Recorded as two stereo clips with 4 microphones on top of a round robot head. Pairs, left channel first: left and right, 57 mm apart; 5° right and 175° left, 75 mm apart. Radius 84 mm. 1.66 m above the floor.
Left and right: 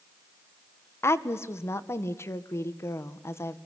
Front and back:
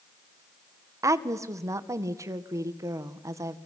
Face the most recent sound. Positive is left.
turn(degrees=130)